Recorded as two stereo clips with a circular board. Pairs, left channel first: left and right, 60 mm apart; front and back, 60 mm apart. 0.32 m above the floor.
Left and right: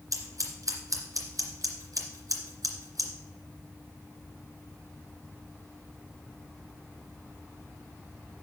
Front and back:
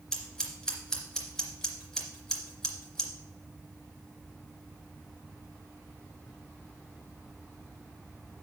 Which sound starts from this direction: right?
Scissors, at 0.1 s.